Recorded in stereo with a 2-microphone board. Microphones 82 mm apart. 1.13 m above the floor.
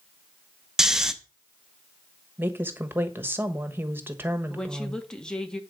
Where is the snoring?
5° right (ahead or behind), 0.8 m.